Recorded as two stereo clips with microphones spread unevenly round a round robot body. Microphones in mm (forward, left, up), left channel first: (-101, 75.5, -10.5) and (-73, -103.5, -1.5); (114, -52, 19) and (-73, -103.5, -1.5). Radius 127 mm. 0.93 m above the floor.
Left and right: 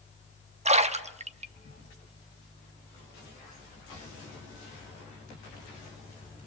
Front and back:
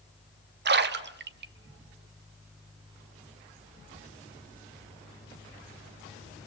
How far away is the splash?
About 1.4 m.